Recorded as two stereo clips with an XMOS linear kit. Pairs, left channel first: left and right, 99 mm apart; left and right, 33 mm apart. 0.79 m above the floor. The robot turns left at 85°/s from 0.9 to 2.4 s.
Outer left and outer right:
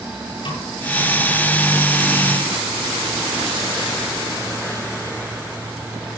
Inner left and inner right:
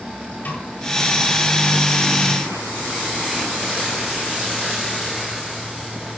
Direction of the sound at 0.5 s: 65° left (ahead or behind).